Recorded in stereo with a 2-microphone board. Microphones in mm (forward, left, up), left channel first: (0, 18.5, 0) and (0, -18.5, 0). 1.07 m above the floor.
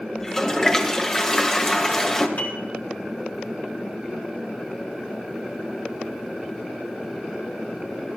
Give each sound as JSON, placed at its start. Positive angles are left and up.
{"t": 0.2, "sound": "a toilet flushing", "side_deg": 15, "distance_m": 1.7}
{"t": 2.4, "sound": "a piano", "side_deg": 65, "distance_m": 3.5}